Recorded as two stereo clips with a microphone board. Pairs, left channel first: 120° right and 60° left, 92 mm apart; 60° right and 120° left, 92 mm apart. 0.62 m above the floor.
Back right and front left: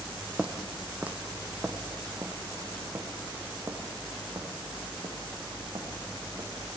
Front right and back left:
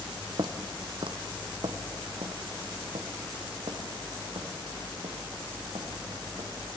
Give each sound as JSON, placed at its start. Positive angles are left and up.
{"t": 0.4, "sound": "footsteps", "azimuth_deg": 140, "distance_m": 1.1}